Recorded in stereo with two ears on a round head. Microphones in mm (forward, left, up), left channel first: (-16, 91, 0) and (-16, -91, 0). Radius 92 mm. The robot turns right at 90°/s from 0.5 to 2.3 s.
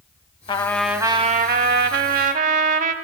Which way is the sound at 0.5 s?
150° left.